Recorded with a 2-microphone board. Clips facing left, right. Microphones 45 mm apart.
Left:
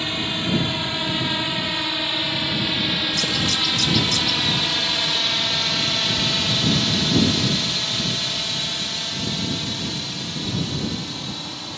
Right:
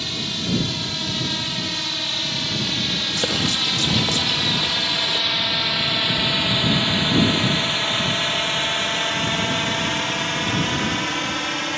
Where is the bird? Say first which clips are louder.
Even; 35° right (ahead or behind).